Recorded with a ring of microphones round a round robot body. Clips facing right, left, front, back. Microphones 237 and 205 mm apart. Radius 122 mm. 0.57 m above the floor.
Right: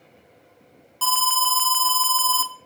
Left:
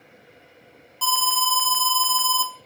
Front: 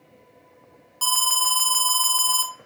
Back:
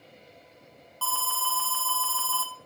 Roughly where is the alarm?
Ahead right.